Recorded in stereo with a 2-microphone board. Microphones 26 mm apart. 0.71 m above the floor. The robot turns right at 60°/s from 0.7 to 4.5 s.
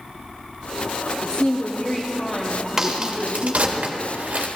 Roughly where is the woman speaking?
Left.